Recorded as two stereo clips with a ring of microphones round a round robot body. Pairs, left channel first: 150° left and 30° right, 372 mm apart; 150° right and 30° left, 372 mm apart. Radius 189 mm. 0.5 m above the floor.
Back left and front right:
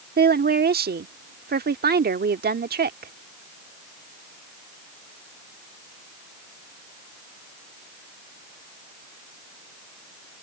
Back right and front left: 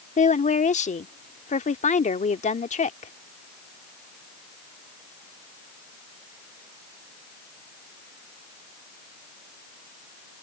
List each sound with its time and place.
0.2 s a woman speaking: 85° right